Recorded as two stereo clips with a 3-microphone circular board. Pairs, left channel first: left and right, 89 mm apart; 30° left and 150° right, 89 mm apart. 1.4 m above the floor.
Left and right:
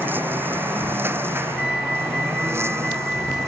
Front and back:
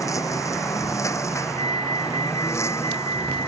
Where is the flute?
Straight ahead.